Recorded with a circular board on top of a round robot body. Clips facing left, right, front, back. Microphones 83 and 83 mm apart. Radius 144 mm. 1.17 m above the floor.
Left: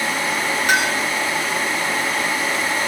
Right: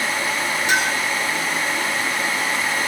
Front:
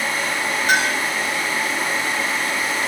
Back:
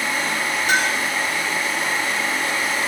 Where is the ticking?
No ticking in this recording.